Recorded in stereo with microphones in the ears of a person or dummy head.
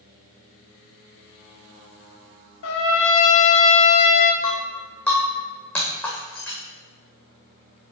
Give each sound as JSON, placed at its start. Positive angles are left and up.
{"t": 2.6, "sound": "a trumpet", "side_deg": 70, "distance_m": 0.9}
{"t": 4.4, "sound": "breaking glass", "side_deg": 5, "distance_m": 2.5}